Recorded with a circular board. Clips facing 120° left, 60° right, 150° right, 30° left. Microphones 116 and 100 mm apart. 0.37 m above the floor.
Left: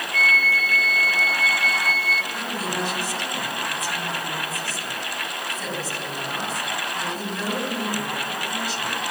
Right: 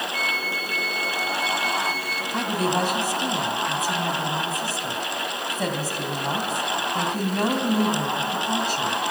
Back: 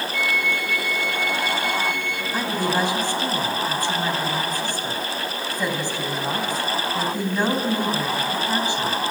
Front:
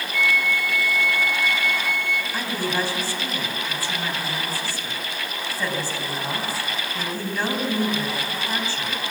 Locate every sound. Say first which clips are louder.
0.1 s a flute: left 4 dB, front 4 dB; 115° right, 0.9 m
2.3 s a woman speaking: right 5 dB, back 5 dB; 80° right, 3 m